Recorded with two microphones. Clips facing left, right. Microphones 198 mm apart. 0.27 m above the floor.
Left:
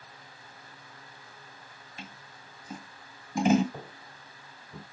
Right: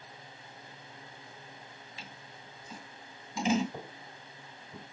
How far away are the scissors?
About 2.5 m.